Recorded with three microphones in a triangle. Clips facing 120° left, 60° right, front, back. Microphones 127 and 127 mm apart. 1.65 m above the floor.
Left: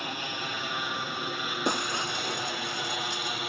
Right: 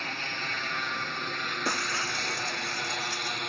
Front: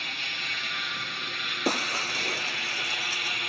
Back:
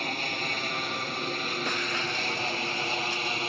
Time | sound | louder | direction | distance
0.0 | an aircraft | left 2 dB, back 8 dB | 170° right | ?
1.6 | breaking glass | left 3 dB, front 2 dB | 50° left | ?